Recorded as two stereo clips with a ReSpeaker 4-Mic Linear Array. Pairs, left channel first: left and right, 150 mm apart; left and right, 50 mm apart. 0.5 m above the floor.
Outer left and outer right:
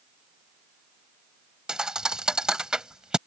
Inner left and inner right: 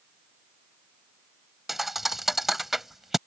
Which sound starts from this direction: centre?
A thud, at 1.7 s.